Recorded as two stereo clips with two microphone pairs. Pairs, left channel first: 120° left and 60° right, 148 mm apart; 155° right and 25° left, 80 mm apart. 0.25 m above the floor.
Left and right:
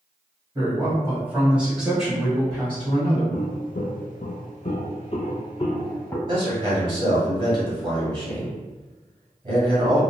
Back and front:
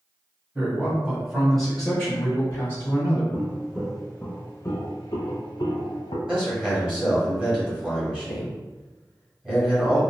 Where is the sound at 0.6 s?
20° right, 1.7 m; by 3.2 s 175° right, 1.8 m.